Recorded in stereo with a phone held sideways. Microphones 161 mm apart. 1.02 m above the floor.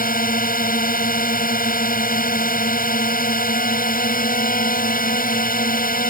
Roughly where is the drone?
Left.